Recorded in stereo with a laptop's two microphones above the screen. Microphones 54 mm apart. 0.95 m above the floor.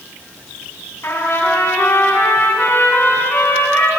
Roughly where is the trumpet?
Left.